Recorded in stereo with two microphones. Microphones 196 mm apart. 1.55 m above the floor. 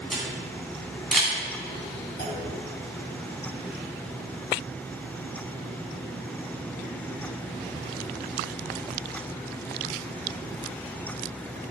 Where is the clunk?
55° left (ahead or behind), 3 m.